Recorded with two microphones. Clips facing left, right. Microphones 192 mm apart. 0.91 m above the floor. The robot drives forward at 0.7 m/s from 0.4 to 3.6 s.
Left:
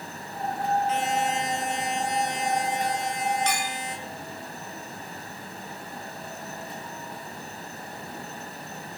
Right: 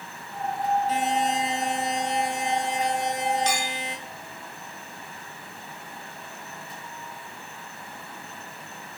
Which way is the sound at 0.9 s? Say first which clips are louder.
Right 1 dB; 40° right (ahead or behind).